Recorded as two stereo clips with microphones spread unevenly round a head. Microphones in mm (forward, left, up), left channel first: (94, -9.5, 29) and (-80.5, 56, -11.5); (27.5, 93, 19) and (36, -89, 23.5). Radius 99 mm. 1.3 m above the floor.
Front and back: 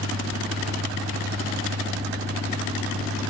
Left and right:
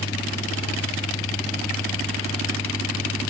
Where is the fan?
145° left.